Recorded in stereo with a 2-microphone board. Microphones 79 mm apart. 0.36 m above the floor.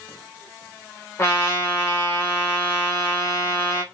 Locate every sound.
1.2 s a trumpet: 35° left (ahead or behind), 1.0 m